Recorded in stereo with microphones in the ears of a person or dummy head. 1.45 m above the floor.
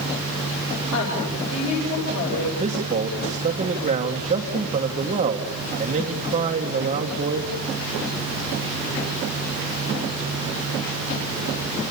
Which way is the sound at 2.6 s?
30° right (ahead or behind).